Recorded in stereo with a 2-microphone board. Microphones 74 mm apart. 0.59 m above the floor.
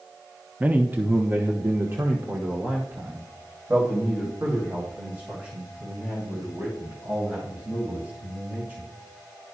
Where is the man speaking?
20° right (ahead or behind), 0.6 m; by 8.9 s 30° right (ahead or behind), 5 m.